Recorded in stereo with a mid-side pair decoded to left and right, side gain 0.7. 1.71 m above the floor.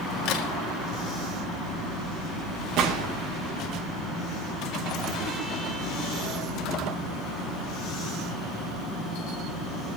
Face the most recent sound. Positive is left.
turn(degrees=-55)